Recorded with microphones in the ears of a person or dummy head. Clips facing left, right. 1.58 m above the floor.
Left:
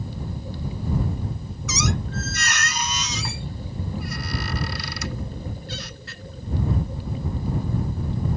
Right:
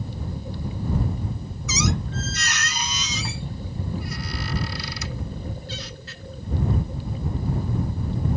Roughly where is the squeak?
Left.